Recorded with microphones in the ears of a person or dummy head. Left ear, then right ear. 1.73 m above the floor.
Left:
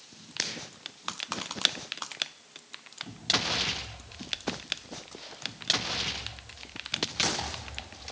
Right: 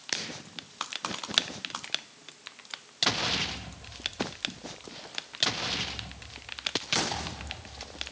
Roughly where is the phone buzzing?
No phone buzzing in this recording.